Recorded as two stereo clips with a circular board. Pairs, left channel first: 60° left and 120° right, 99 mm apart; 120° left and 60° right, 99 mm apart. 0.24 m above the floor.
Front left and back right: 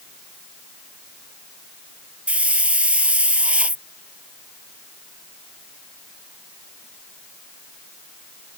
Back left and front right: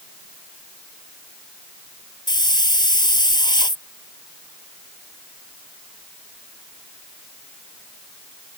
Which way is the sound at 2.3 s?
165° left.